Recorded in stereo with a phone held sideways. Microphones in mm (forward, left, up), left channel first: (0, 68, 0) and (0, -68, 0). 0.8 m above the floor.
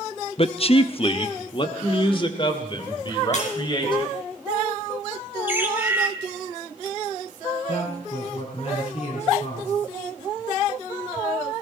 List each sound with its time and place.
0.4 s a man speaking: 40° left (ahead or behind), 0.5 m; by 4.1 s 35° left (ahead or behind), 4 m
3.3 s breaking glass: 50° left (ahead or behind), 5.5 m
5.5 s a bird: 15° right (ahead or behind), 1.6 m
7.7 s a man speaking: 50° left (ahead or behind), 8 m